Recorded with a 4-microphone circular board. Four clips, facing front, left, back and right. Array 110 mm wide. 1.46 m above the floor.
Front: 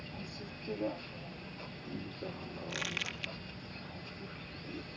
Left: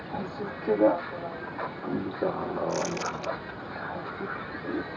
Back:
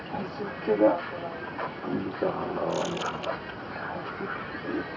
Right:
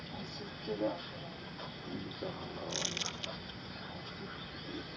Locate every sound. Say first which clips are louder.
0.0 s a vehicle: left 11 dB, back 13 dB; 140° left
2.7 s crumpling: left 12 dB, back 12 dB; 30° left